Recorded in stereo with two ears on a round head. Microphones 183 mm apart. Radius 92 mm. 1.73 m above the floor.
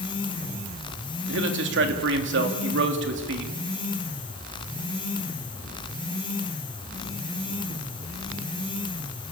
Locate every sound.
1.3 s a man speaking: 60° right (ahead or behind), 3 m